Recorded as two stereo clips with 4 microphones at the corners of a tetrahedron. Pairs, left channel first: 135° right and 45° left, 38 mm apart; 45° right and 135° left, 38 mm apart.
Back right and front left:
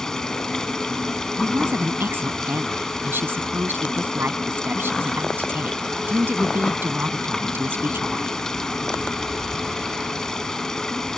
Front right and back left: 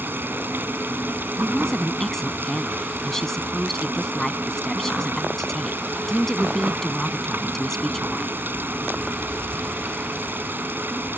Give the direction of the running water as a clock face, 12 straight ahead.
7 o'clock.